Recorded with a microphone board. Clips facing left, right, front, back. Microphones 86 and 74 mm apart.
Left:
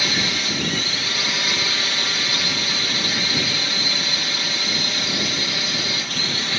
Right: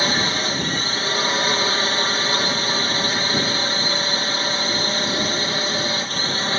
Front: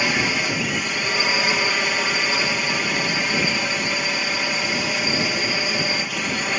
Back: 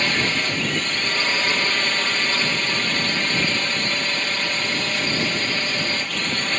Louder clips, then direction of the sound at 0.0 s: Right 3 dB, front 1 dB; 75° right.